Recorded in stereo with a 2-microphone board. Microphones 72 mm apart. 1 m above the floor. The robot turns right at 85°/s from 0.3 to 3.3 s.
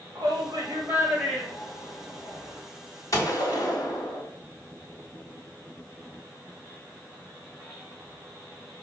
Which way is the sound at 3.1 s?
45° left (ahead or behind).